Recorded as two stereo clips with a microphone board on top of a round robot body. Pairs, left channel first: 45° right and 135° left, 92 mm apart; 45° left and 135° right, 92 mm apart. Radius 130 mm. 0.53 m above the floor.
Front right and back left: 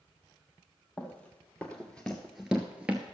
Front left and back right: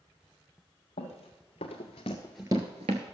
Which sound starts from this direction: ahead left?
Running footsteps, at 1.0 s.